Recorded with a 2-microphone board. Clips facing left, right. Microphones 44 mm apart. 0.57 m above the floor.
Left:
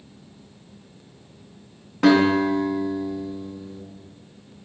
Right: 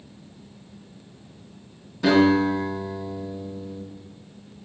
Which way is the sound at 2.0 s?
55° left (ahead or behind).